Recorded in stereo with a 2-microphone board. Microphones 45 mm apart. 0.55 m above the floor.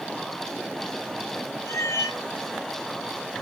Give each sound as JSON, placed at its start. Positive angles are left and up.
{"t": 1.7, "sound": "a cat meowing", "side_deg": 90, "distance_m": 1.1}